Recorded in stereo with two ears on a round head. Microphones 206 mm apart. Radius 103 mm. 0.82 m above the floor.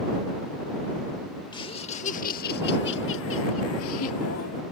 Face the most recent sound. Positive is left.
turn(degrees=70)  # may be behind; listen again after turning